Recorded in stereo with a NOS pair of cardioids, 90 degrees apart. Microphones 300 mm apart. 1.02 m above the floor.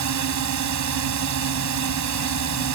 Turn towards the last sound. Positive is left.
turn(degrees=-70)